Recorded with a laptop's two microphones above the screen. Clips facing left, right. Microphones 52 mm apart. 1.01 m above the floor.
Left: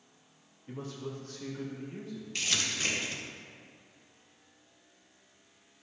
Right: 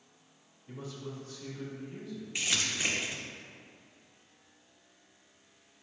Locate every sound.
0.7 s a man speaking: 50° left (ahead or behind), 1.6 m; by 2.2 s 30° left (ahead or behind), 2.0 m
2.4 s crumpling: 15° right (ahead or behind), 1.5 m